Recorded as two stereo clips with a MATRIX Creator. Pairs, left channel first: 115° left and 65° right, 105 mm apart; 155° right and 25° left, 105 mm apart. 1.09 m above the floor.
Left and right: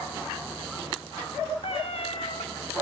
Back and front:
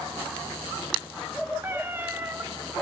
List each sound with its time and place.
1.6 s a cat meowing: 90° left, 1.0 m